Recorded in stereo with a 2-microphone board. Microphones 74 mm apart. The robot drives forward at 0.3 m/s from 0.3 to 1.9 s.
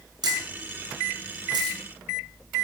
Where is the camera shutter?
65° right (ahead or behind), 6 m; by 1.8 s 70° right (ahead or behind), 5.5 m.